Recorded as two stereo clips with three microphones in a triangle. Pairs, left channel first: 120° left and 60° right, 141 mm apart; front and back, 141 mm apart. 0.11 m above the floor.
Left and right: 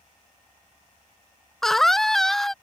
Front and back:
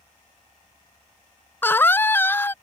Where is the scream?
35° left.